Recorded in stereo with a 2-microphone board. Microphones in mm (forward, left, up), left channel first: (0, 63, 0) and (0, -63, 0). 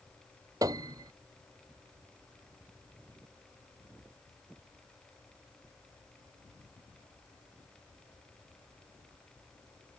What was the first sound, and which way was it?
A piano, 30° right (ahead or behind).